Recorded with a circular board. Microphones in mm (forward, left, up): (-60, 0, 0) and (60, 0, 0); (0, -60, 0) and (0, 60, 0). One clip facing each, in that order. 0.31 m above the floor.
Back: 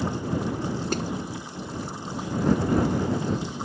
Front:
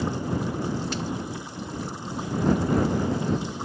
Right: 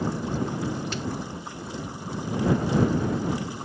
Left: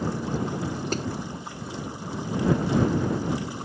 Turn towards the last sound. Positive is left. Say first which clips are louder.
# back 3 dB, left 4 dB
turn(degrees=140)